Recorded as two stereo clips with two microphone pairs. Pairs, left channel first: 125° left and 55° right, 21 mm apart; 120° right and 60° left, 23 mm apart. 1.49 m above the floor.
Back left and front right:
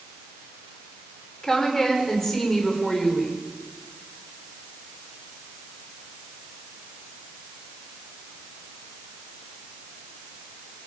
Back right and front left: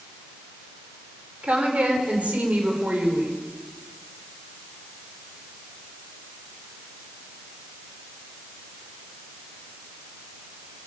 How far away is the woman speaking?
About 5.5 m.